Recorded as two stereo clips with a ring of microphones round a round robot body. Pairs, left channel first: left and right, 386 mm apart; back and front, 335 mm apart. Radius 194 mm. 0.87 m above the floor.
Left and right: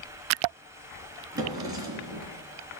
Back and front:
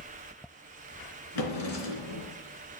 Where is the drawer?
170° right, 3 m.